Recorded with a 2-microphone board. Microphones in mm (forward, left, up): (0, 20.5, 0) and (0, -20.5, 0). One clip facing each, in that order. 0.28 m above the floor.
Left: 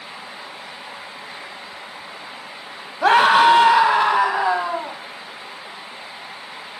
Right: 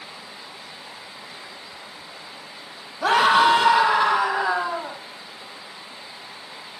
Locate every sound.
3.0 s a scream: 40° left (ahead or behind), 1.6 m; by 5.0 s 15° left (ahead or behind), 2.0 m